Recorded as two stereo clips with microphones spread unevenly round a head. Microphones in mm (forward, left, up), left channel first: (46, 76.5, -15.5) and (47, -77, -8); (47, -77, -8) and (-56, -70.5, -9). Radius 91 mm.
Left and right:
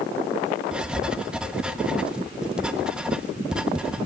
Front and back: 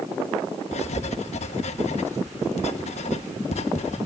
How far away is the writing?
About 1.3 m.